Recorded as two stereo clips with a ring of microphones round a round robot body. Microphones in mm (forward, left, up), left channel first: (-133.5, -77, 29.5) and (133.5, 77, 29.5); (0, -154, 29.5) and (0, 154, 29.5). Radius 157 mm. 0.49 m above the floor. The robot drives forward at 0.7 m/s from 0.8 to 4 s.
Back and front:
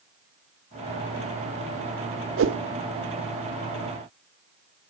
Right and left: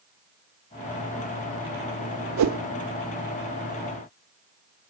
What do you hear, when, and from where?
2.4 s a whoosh: 70° left, 1.1 m; by 2.6 s 75° left, 1.0 m